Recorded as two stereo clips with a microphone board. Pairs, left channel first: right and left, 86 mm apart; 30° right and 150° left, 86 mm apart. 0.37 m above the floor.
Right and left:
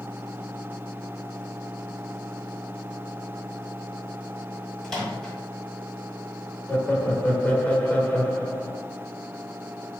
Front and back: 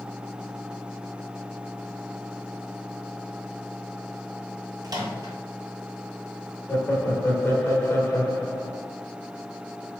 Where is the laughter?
40° right, 0.9 m.